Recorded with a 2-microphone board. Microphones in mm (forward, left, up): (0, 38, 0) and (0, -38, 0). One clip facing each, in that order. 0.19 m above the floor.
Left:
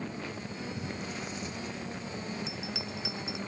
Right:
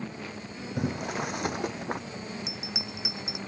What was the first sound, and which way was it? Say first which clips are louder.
Boiling: right 7 dB; 70° right (ahead or behind).